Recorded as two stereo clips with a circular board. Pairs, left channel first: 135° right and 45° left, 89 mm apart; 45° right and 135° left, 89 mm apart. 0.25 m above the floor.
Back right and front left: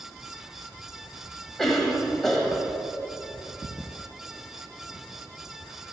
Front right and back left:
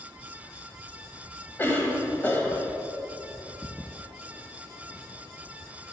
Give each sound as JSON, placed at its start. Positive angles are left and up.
{"t": 1.6, "sound": "a cough", "azimuth_deg": -55, "distance_m": 1.5}